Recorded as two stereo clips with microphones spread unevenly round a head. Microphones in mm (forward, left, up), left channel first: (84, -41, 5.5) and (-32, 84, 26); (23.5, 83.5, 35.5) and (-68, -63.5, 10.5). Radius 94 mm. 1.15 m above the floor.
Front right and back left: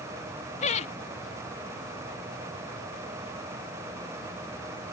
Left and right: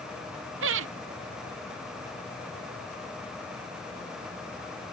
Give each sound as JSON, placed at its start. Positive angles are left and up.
{"t": 0.6, "sound": "laughter", "azimuth_deg": -105}